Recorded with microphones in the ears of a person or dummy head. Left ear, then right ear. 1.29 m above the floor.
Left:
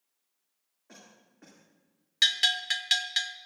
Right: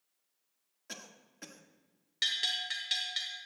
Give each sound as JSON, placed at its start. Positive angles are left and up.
{"t": 0.9, "sound": "a cough", "side_deg": -75, "distance_m": 1.8}
{"t": 2.2, "sound": "a bell", "side_deg": 40, "distance_m": 0.9}